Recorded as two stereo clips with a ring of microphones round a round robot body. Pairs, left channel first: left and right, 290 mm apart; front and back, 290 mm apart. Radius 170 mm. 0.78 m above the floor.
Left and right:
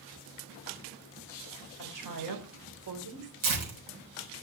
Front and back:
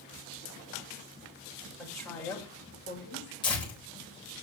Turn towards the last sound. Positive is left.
turn(degrees=-75)